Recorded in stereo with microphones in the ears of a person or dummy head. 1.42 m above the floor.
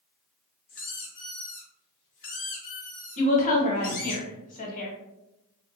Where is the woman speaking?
35° left (ahead or behind), 1.0 m.